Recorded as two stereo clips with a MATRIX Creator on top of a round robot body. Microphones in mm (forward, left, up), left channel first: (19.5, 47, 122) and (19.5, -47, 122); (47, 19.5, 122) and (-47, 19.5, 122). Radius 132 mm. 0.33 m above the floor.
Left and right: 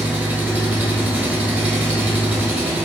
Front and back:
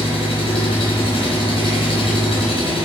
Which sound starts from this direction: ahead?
An engine running, at 0.0 s.